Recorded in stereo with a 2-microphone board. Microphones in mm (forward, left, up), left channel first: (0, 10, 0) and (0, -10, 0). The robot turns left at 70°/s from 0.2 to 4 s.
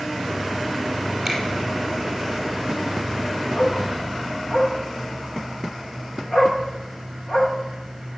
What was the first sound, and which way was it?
A finger snap, 20° right (ahead or behind).